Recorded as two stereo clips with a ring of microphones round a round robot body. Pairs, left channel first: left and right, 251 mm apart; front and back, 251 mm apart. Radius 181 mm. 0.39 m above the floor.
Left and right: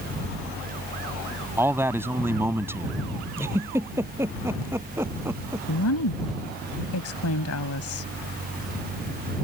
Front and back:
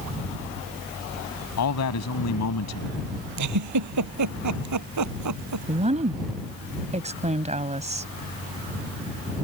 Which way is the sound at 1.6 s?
10° right.